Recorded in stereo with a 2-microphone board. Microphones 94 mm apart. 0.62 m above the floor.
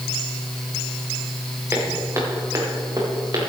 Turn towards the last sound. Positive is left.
turn(degrees=-45)  # may be behind; listen again after turning